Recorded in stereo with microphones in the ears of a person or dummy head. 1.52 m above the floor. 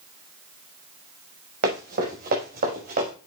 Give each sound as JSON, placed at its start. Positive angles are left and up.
{"t": 1.6, "sound": "running footsteps", "side_deg": -50, "distance_m": 5.5}